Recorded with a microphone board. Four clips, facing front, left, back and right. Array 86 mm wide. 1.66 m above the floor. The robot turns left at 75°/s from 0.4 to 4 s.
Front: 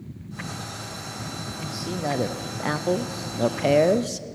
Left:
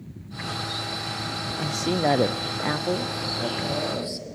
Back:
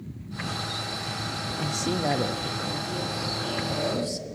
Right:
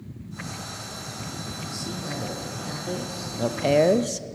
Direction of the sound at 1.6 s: 125° left.